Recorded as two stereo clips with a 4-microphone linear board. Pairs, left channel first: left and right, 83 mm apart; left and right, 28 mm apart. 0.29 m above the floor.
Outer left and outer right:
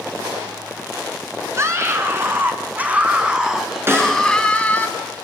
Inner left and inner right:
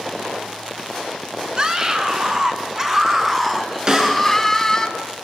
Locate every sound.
1.6 s a scream: 35° right (ahead or behind), 4 m; by 4.9 s 20° left (ahead or behind), 3 m
3.9 s a snare drum: 30° right (ahead or behind), 4.5 m